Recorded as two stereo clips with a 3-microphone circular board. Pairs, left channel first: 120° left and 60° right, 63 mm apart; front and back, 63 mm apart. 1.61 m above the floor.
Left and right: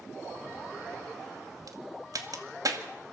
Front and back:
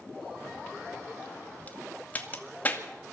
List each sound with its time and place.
1.7 s a crack: 60° right, 2.0 m